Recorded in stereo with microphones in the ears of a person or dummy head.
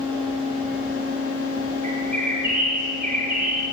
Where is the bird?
45° right (ahead or behind), 4 m.